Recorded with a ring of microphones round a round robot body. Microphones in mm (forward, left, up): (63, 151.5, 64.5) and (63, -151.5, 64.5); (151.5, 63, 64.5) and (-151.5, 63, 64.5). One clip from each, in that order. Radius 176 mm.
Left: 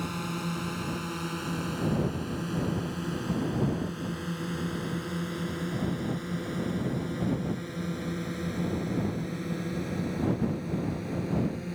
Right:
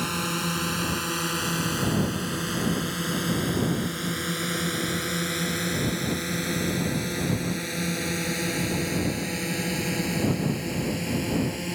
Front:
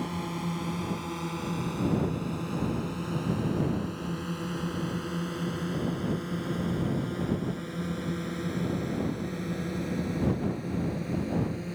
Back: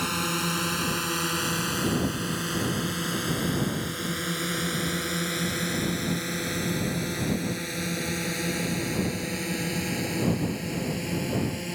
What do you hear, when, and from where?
0.0 s a drone: 155° right; by 11.8 s 135° right